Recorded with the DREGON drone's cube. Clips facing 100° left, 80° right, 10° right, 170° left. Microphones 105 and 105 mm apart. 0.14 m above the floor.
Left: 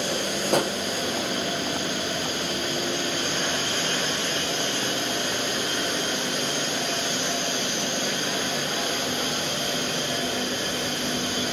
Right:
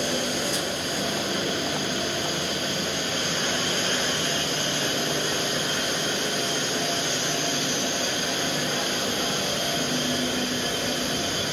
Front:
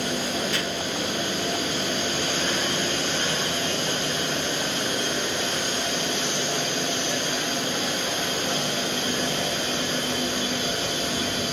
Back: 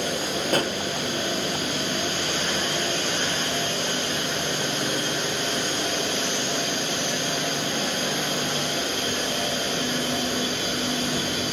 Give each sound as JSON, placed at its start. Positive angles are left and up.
{"t": 0.5, "sound": "a pop", "azimuth_deg": 125, "distance_m": 0.7}